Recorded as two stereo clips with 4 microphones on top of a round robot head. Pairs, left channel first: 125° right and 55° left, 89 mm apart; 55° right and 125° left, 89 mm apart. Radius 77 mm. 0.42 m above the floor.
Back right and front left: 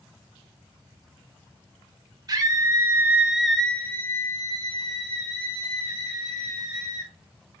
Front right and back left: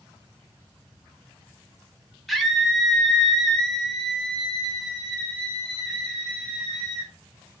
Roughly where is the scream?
Ahead left.